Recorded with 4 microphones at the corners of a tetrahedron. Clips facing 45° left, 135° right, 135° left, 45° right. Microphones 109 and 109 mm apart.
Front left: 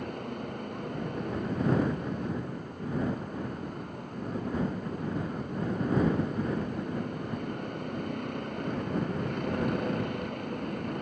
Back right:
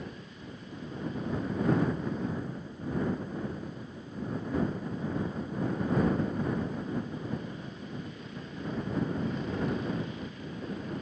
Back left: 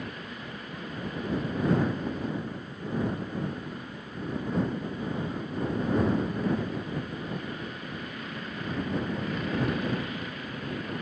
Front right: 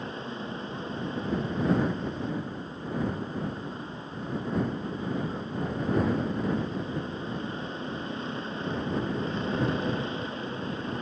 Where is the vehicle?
15° left.